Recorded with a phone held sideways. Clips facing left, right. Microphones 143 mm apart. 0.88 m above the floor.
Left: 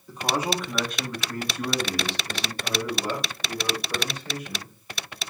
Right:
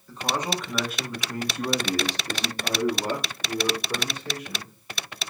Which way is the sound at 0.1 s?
15° left (ahead or behind).